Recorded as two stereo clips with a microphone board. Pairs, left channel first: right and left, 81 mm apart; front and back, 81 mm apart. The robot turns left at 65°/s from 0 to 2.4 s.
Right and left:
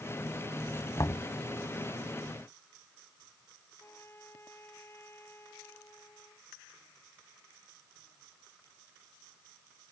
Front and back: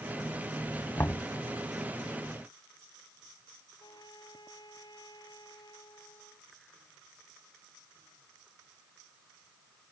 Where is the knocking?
50° right; by 1.2 s 70° right.